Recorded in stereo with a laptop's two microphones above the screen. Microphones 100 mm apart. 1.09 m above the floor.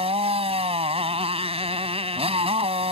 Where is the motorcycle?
80° right.